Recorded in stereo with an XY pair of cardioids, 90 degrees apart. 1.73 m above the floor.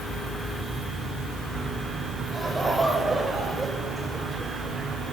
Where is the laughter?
20° right, 6.5 m.